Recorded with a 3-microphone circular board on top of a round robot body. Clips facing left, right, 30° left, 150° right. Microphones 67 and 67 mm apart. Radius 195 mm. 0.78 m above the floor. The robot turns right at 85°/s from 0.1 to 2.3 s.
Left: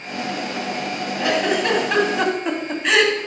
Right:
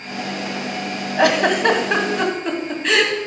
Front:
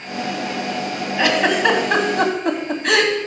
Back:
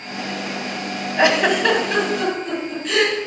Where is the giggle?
90° right, 2 m; by 3.1 s 5° left, 2 m.